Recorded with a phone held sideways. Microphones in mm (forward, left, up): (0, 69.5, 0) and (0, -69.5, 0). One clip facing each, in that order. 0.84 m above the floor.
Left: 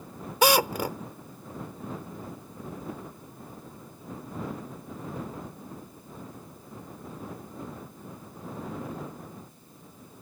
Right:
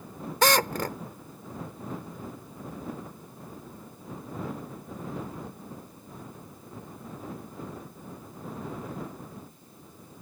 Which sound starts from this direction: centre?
A drill, at 0.4 s.